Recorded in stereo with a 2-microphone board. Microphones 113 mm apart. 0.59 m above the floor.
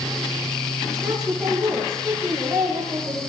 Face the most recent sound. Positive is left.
turn(degrees=-10)  # may be behind; listen again after turning